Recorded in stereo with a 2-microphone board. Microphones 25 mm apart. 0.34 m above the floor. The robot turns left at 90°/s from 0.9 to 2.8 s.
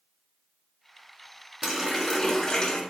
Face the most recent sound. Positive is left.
turn(degrees=105)